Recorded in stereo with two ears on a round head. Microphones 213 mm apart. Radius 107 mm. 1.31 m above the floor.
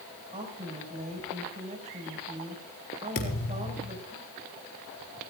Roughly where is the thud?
Left.